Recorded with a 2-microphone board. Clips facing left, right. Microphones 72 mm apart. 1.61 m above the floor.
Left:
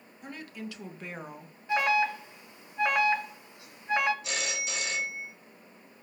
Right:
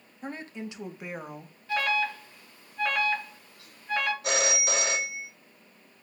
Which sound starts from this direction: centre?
An alarm, at 1.7 s.